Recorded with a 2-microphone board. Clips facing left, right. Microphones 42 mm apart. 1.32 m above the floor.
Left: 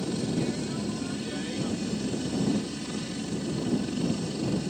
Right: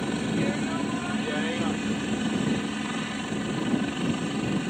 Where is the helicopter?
40° right (ahead or behind).